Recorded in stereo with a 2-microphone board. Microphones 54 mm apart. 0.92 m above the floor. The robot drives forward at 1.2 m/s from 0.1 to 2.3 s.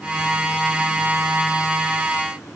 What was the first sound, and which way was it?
Only background noise.